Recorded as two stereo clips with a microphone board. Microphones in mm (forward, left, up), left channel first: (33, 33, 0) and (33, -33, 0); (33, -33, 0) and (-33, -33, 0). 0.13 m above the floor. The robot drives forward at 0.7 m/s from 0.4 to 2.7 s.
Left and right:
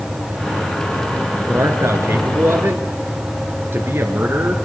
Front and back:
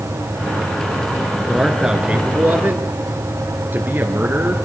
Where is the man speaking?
95° right, 1.6 m; by 4.6 s 130° right, 1.8 m.